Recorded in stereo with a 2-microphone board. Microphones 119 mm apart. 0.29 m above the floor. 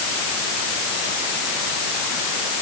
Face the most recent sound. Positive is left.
No sound to turn to.